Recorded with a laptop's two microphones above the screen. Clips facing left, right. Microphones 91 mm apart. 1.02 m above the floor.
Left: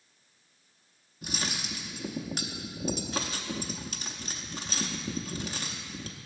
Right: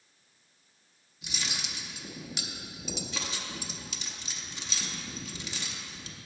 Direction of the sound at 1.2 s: 45° left (ahead or behind).